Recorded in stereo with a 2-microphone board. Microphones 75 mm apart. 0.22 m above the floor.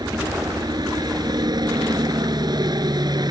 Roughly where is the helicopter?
Right.